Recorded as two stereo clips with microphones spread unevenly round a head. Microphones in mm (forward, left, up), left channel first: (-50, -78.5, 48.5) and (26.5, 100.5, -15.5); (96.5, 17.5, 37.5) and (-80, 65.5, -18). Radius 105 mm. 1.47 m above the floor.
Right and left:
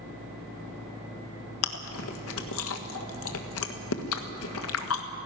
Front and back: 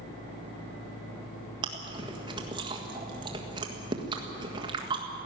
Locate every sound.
1.6 s chewing: 125° right, 1.6 m